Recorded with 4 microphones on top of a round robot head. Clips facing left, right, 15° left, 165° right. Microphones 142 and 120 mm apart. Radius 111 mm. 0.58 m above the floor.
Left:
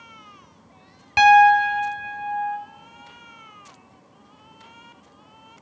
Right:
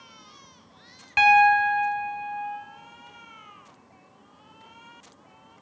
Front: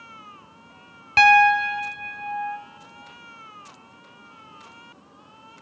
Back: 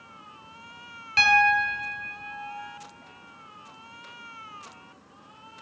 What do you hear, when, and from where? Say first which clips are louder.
1.2 s a piano: left 5 dB, front 7 dB; 40° left, 0.8 m